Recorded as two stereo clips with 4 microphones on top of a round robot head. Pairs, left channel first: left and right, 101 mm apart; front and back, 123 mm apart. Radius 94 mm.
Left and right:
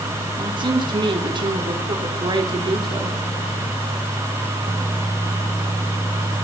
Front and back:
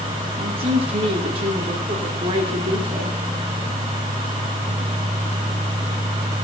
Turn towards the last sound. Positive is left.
turn(degrees=-130)